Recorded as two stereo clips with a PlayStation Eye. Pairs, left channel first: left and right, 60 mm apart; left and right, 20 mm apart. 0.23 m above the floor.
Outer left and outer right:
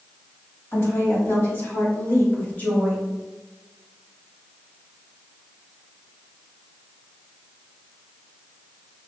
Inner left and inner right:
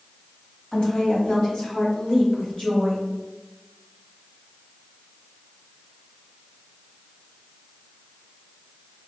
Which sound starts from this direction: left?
A woman speaking, at 0.7 s.